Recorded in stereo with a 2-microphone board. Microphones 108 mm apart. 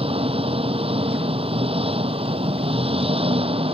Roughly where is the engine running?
Right.